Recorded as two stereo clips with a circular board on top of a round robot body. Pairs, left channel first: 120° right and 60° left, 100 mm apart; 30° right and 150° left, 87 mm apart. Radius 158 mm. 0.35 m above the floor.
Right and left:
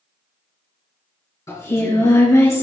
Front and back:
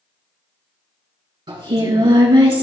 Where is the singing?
Straight behind, 3.5 m.